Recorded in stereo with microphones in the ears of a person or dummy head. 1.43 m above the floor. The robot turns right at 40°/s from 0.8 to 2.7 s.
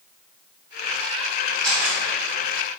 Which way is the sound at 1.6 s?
5° left (ahead or behind).